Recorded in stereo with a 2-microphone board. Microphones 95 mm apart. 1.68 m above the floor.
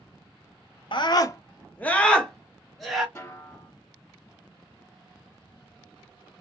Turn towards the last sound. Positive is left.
turn(degrees=30)  # may be behind; listen again after turning